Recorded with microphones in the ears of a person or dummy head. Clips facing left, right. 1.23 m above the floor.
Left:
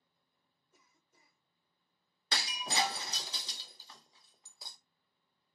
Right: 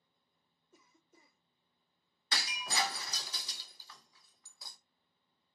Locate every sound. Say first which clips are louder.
0.7 s a cough: right 7 dB; 50° right (ahead or behind), 0.8 m
2.3 s breaking glass: left 2 dB; 25° left (ahead or behind), 0.5 m